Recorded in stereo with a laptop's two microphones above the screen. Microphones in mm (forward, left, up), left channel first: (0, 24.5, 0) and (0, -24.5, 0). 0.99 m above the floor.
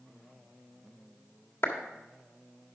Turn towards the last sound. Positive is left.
turn(degrees=55)  # may be behind; listen again after turning